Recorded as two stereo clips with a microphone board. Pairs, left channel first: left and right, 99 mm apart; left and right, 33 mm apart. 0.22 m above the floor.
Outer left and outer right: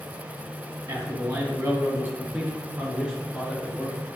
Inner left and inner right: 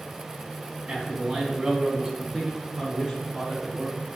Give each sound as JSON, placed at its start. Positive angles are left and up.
{"t": 0.9, "sound": "a man speaking", "side_deg": -40, "distance_m": 1.8}